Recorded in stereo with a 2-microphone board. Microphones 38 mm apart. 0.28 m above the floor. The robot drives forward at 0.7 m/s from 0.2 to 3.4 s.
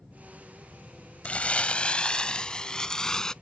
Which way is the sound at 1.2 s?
35° left (ahead or behind).